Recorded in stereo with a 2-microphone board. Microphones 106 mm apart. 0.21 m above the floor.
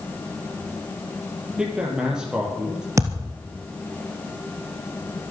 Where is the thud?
30° right (ahead or behind), 2.5 m.